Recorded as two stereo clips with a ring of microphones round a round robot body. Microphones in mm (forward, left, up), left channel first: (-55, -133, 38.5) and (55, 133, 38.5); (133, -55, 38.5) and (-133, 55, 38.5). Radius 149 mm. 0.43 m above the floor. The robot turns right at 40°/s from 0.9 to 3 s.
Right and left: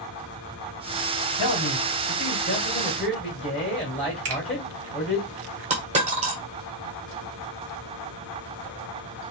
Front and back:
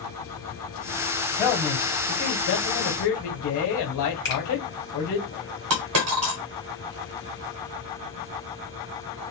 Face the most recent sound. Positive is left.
turn(degrees=135)